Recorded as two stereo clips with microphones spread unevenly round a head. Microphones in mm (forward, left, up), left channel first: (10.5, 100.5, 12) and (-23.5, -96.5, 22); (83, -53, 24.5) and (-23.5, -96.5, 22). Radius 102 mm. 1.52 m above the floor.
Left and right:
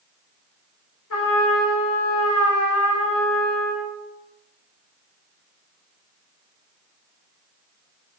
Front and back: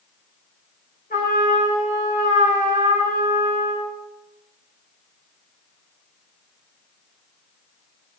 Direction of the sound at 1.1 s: 65° left.